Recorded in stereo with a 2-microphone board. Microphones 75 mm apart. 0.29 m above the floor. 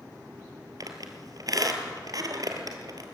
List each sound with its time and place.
0.8 s a squeak: 55° right (ahead or behind), 2 m